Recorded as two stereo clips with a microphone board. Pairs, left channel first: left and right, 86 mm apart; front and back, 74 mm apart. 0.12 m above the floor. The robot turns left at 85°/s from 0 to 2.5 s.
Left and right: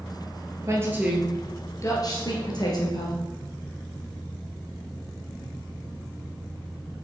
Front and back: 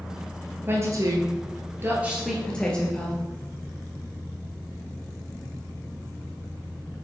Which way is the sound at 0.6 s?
130° right.